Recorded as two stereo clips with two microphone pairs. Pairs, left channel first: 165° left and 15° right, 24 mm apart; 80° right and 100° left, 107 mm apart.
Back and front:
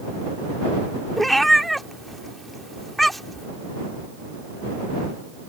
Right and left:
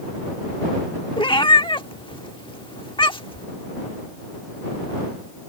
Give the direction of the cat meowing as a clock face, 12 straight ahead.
4 o'clock.